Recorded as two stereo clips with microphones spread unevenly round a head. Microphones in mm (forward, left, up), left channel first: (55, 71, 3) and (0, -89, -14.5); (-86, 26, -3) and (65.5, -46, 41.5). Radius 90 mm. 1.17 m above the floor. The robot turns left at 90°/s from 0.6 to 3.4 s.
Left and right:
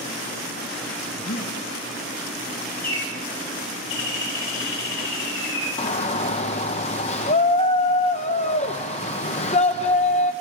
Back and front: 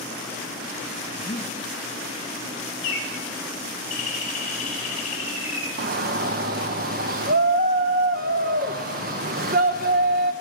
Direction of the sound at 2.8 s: 155° left.